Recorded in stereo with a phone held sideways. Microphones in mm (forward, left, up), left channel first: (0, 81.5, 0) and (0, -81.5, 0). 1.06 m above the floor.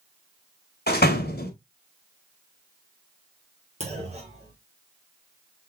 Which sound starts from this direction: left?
A door slam, at 0.9 s.